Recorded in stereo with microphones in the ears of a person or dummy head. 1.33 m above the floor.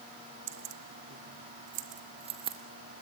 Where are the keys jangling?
70° right (ahead or behind), 1.1 m; by 2.6 s 30° right (ahead or behind), 1.6 m.